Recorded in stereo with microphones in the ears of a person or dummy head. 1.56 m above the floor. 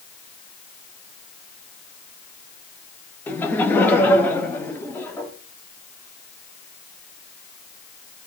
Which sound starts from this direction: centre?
Laughter, at 3.3 s.